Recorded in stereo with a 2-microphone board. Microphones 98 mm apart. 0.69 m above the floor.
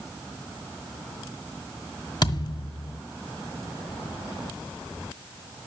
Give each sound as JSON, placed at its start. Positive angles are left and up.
{"t": 2.2, "sound": "a thud", "side_deg": 50, "distance_m": 1.5}